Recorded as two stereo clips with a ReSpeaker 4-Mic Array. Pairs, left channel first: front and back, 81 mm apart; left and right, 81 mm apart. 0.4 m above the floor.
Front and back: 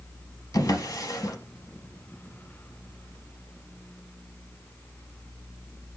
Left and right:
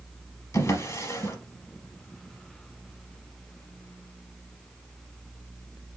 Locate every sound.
0.5 s a drawer: 40° left, 0.7 m